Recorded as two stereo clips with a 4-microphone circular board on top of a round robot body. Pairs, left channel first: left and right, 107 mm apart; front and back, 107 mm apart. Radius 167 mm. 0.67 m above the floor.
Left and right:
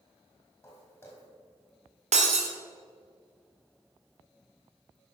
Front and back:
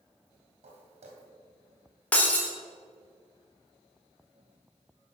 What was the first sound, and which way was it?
Footsteps, 160° left.